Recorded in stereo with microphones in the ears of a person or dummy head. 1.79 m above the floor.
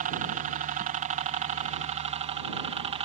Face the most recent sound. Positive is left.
turn(degrees=-30)  # may be behind; listen again after turning